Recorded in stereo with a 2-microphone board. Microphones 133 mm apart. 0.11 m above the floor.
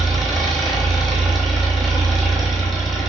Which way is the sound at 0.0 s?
Centre (ahead or behind).